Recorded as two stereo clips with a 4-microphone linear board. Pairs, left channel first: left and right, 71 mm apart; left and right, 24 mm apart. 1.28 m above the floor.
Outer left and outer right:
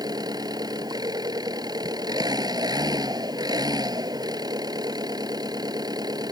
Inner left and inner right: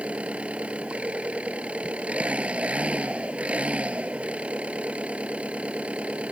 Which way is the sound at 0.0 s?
75° right (ahead or behind).